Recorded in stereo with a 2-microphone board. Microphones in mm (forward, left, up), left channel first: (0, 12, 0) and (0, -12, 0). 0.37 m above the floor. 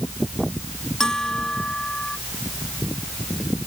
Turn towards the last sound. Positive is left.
turn(degrees=30)  # may be behind; listen again after turning